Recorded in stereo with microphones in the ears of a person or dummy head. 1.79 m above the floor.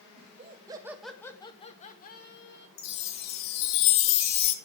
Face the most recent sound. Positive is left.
turn(degrees=60)  # may be behind; listen again after turning